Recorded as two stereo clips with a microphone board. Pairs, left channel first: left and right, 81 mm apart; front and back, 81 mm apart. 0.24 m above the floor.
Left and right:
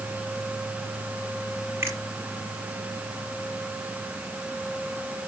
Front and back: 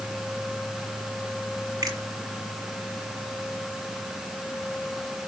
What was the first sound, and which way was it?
A finger snap, 145° right.